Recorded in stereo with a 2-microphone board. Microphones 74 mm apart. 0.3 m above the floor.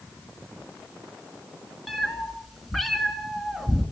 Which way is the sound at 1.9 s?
Centre (ahead or behind).